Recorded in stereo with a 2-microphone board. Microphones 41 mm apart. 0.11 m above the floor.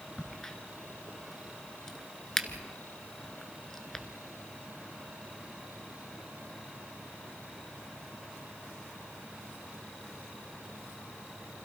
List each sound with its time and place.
0.2 s a crack: 10° left (ahead or behind), 1.3 m